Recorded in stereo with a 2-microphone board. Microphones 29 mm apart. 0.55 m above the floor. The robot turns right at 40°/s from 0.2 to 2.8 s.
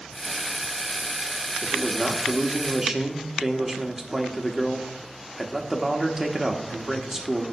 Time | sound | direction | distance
1.6 | a man speaking | 160° left | 1.1 m